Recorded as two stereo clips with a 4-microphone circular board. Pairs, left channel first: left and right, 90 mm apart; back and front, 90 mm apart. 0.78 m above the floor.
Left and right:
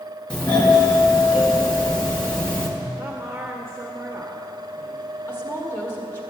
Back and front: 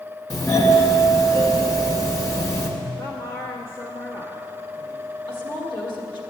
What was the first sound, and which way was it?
A doorbell, 160° left.